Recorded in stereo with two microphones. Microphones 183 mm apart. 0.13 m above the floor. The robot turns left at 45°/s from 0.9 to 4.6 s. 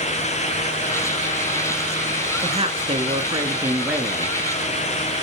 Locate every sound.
2.4 s a woman speaking: 95° right, 1.5 m; by 4.4 s straight behind, 1.5 m